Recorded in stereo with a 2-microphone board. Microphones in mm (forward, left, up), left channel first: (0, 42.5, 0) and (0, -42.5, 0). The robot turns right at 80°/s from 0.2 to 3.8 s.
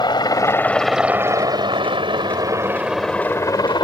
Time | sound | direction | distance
0.0 | a helicopter | 55° left (ahead or behind) | ?